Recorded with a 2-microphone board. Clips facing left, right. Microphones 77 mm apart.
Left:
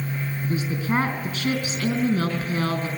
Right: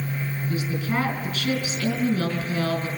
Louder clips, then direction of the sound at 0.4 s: Left 2 dB; 35° left (ahead or behind).